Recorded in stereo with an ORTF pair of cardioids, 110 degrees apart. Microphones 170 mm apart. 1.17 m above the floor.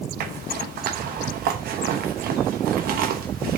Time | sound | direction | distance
0.2 | a zipper | 60° right | 0.9 m